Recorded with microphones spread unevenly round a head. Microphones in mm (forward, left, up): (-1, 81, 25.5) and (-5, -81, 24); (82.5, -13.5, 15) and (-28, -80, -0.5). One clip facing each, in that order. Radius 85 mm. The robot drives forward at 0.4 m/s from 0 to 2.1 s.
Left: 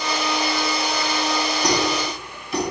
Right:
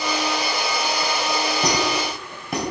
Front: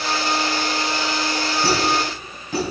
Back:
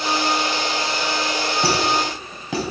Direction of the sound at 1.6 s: 130° right.